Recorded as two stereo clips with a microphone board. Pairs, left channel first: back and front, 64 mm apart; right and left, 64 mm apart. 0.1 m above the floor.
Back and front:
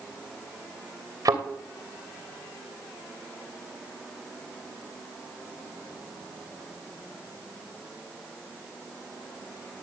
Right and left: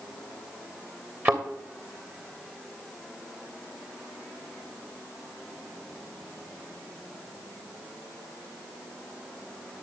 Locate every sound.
1.2 s a thud: 30° left, 2.5 m